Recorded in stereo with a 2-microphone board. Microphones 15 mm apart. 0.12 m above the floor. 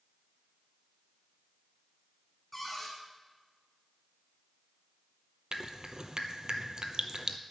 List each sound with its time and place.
2.5 s a cupboard door: 5° left (ahead or behind), 3.5 m
5.5 s dripping: 55° right (ahead or behind), 1.0 m